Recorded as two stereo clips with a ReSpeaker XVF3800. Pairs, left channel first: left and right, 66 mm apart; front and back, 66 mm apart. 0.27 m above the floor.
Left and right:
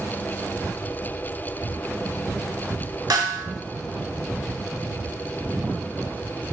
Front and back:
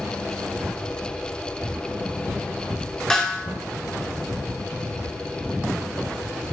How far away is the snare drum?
About 0.8 m.